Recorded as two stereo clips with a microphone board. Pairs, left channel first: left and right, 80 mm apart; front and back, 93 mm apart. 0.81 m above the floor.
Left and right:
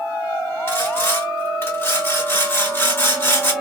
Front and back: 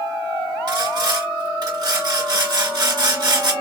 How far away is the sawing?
About 2 m.